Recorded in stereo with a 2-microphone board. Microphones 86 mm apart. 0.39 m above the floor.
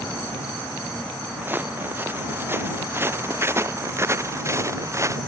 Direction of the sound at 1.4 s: 20° right (ahead or behind).